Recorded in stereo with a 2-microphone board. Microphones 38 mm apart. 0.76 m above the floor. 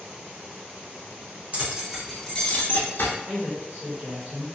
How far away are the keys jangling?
About 0.8 m.